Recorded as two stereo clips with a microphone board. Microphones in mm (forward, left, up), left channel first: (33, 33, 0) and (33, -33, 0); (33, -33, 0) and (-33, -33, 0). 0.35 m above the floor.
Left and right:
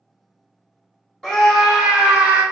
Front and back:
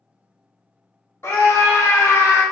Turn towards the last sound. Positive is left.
turn(degrees=-25)